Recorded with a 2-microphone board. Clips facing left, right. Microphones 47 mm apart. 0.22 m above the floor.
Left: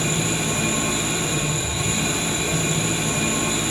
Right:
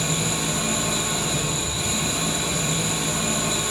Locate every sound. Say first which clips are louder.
0.0 s an engine running: left 2 dB; 35° left (ahead or behind), 1.7 m